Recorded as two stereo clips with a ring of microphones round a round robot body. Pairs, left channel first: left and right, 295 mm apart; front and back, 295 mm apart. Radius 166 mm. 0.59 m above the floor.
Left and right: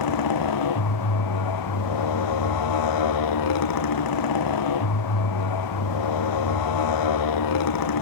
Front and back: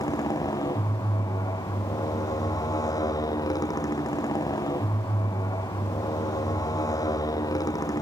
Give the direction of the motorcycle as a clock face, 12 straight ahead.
9 o'clock.